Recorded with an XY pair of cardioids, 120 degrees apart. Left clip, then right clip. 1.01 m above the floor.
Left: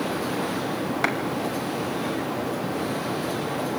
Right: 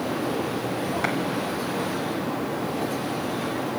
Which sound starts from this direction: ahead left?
A clap, at 1.0 s.